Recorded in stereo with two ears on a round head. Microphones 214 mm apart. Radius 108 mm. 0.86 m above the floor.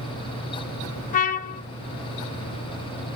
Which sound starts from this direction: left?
A trumpet, at 1.1 s.